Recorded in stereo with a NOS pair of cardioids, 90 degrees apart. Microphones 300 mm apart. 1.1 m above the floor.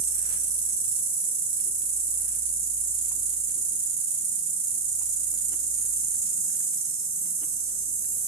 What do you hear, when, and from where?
0.0 s an insect: 65° right, 1.5 m